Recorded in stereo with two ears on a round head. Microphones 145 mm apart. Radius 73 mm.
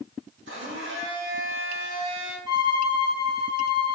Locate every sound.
0.5 s a blender: 80° right, 1.8 m
2.5 s a violin: 20° right (ahead or behind), 1.7 m